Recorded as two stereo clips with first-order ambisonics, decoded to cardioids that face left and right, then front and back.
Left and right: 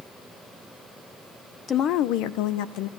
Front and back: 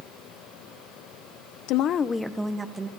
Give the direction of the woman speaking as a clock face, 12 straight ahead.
11 o'clock.